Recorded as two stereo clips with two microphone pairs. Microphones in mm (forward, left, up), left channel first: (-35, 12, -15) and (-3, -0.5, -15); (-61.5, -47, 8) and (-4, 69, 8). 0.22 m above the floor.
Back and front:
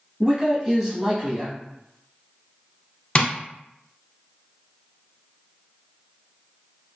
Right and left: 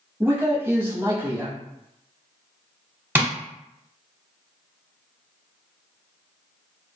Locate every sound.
0.2 s a man speaking: 20° left, 1.0 m
3.1 s tapping: 130° left, 1.0 m